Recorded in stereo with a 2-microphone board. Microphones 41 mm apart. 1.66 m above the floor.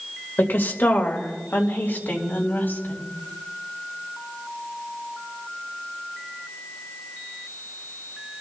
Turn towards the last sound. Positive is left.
turn(degrees=65)  # may be behind; listen again after turning